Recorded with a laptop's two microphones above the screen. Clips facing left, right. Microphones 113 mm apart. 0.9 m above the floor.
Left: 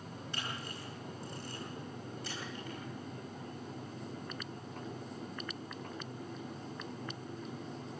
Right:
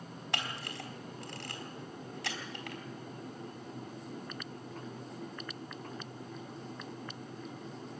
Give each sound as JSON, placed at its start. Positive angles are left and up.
{"t": 0.3, "sound": "a camera shutter", "side_deg": -80, "distance_m": 3.5}